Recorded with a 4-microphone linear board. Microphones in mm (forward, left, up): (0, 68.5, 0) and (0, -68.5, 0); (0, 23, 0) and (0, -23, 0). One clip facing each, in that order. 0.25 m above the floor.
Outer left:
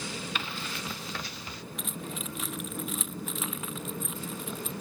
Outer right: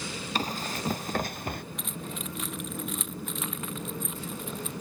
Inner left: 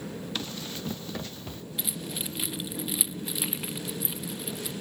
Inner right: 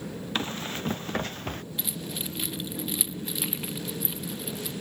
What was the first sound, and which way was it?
Running footsteps, 40° right (ahead or behind).